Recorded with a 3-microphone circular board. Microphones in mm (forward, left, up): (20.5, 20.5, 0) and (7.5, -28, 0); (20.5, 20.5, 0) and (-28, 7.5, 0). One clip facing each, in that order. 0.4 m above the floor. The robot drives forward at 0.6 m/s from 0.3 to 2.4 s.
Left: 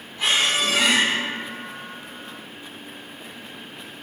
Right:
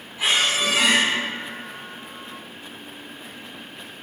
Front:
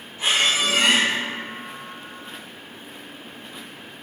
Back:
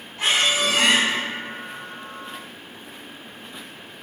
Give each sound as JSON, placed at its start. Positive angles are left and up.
{"t": 0.2, "sound": "a squeak", "azimuth_deg": 175, "distance_m": 1.4}